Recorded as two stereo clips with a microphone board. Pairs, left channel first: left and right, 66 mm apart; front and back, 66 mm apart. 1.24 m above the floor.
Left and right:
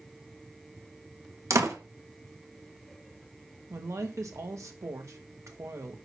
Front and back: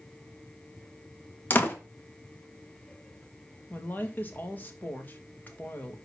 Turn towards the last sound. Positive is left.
turn(degrees=-60)